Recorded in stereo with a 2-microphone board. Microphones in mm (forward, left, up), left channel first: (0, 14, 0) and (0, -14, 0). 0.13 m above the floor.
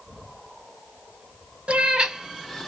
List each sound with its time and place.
1.7 s a cat meowing: 40° right (ahead or behind), 0.6 m; by 2.7 s 10° left (ahead or behind), 0.5 m